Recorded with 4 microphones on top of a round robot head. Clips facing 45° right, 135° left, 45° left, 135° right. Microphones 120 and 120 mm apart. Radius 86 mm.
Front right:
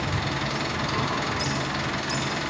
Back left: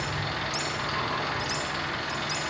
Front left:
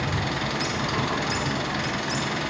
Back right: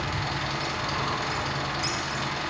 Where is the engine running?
5° left, 4 m.